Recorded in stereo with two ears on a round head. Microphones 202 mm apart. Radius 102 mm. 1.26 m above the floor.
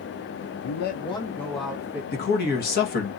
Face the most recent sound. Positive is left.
turn(degrees=45)  # may be behind; listen again after turning